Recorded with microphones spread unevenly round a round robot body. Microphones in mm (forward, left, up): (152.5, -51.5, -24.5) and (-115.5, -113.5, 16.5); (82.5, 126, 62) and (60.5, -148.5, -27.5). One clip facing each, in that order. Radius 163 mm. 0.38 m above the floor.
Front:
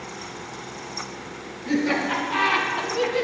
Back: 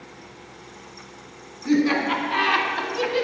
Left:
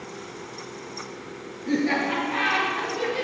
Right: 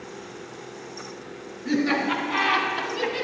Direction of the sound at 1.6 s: 110° right.